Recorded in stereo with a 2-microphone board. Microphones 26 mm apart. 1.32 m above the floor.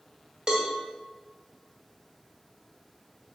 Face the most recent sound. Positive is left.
turn(degrees=-25)  # may be behind; listen again after turning